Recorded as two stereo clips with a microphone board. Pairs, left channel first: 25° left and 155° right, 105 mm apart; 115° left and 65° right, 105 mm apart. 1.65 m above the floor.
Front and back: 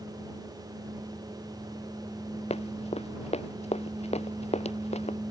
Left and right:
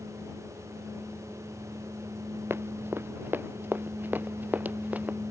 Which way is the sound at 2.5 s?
Straight ahead.